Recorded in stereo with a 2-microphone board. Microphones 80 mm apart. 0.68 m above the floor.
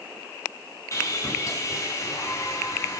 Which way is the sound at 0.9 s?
40° left (ahead or behind).